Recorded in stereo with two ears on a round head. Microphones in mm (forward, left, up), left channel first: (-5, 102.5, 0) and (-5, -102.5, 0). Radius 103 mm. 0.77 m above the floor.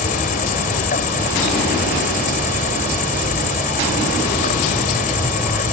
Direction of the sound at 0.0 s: 35° left (ahead or behind).